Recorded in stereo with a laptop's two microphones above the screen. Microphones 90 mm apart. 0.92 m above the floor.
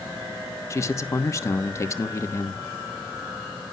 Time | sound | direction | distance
0.7 | a man speaking | 30° left (ahead or behind) | 1.3 m